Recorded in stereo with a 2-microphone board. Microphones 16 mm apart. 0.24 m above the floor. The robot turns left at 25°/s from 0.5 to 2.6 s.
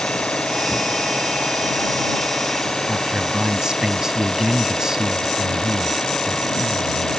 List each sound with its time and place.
0.0 s an engine running: 100° left; by 7.2 s 45° left
2.9 s a man speaking: 40° right (ahead or behind)